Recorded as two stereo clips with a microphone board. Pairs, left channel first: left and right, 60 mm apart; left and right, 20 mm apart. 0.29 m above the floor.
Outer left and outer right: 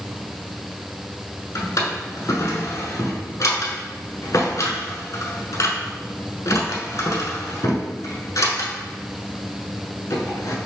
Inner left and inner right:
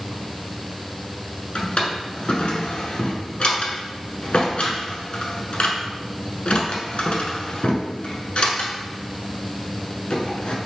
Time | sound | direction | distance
1.6 | a drawer | 75° left (ahead or behind) | 0.9 m